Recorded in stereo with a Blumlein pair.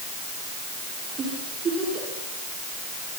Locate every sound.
1.2 s a giggle: 20° right, 8.5 m